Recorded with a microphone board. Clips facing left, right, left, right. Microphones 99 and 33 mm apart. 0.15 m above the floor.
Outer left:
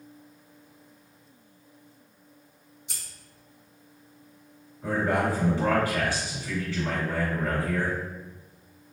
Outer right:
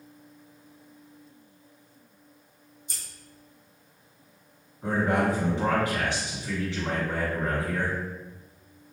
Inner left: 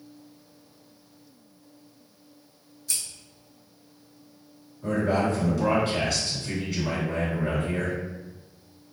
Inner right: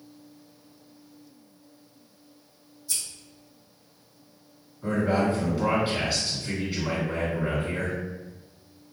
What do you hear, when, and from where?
2.9 s scissors: 65° left (ahead or behind), 1.0 m
4.8 s a man speaking: 20° right (ahead or behind), 1.7 m